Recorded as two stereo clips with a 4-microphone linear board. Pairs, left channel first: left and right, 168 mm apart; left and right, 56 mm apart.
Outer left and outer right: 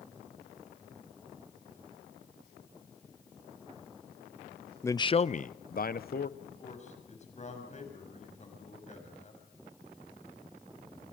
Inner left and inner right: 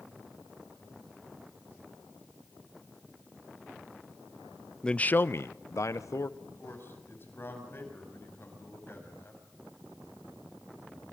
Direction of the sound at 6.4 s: 45° left (ahead or behind).